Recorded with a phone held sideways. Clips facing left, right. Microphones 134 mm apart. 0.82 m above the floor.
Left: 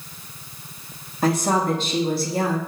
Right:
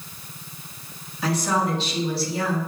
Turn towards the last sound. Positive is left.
turn(degrees=50)  # may be behind; listen again after turning